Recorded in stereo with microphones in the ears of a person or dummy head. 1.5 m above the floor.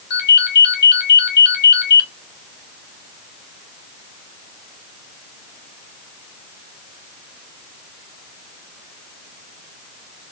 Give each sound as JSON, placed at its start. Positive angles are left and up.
{"t": 0.1, "sound": "a ringtone", "side_deg": 60, "distance_m": 2.0}